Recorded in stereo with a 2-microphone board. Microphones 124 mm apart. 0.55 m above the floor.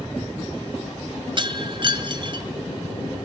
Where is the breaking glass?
40° right (ahead or behind), 1.9 m.